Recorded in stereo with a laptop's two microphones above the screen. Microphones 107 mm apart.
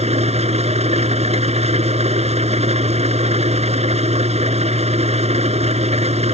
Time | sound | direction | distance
0.0 | an engine running | 90° right | ?